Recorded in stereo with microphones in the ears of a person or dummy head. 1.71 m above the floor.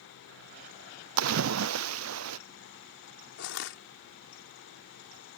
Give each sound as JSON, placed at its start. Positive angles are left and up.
{"t": 1.2, "sound": "a splash", "side_deg": -85}
{"t": 3.4, "sound": "crushing", "side_deg": 75}